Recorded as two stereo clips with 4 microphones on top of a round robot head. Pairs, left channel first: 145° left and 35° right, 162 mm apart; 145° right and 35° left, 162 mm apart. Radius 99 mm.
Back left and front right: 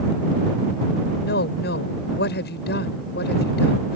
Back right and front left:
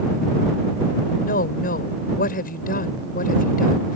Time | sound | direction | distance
1.2 | a woman speaking | 175° left | ?